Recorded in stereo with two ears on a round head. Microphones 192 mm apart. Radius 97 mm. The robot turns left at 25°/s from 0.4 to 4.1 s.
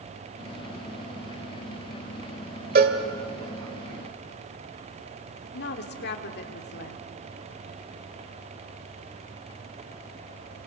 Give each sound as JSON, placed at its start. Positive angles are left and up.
{"t": 2.8, "sound": "a cowbell", "side_deg": -40, "distance_m": 1.6}
{"t": 5.5, "sound": "a woman speaking", "side_deg": 50, "distance_m": 1.8}